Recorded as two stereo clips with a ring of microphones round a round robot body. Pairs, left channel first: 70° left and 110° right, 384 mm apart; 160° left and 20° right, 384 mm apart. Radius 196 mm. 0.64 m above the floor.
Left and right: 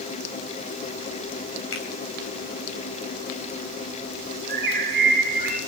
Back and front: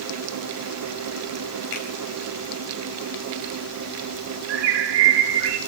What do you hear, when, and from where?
1.7 s a finger snap: 125° left, 4 m
4.5 s a bird: 40° right, 5 m